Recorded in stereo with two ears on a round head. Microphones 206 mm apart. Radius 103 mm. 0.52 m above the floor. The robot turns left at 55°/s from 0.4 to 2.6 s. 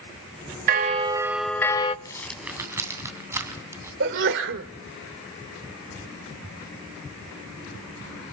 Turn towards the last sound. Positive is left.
turn(degrees=-55)  # may be behind; listen again after turning